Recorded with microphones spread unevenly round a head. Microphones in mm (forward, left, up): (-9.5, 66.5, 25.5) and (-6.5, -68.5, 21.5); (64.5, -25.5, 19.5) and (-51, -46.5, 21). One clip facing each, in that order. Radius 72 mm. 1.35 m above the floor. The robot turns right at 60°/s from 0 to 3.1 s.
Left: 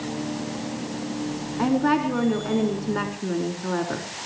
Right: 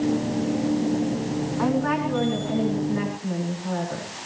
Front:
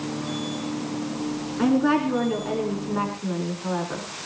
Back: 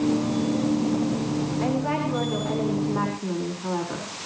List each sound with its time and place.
1.6 s a woman speaking: 25° left, 5.5 m; by 4.1 s 115° left, 5.5 m